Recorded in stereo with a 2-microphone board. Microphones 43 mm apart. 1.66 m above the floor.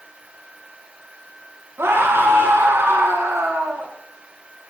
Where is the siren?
I don't hear a siren.